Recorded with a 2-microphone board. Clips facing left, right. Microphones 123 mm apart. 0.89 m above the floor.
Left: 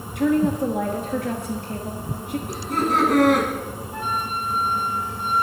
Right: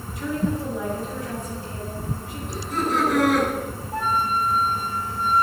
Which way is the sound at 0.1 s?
65° left (ahead or behind).